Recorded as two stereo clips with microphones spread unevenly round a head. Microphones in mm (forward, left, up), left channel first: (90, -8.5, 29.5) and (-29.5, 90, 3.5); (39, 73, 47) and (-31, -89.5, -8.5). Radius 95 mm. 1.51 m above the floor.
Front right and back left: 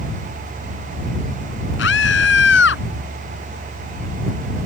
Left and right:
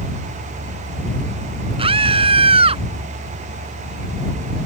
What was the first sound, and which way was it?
A scream, 50° right.